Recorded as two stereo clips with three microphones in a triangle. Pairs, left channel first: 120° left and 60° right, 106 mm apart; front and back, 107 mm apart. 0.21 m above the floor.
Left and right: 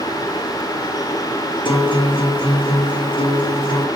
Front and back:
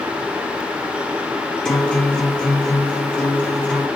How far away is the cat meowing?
No cat meowing in this recording.